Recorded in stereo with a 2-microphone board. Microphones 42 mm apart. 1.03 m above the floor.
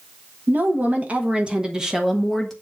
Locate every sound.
0.5 s a woman speaking: 45° right (ahead or behind), 1.3 m; by 2.5 s 5° left (ahead or behind), 1.0 m